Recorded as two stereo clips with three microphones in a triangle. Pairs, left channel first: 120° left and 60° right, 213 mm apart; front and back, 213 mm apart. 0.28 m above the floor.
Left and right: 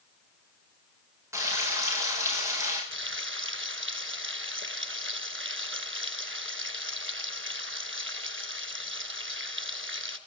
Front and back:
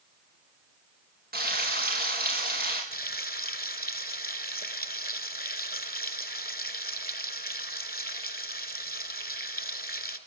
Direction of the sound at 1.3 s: 135° right.